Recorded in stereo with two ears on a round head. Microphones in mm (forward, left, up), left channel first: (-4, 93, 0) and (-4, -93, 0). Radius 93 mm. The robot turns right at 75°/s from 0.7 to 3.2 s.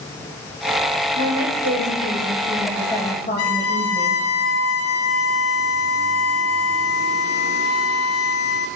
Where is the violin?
80° left, 1.4 m.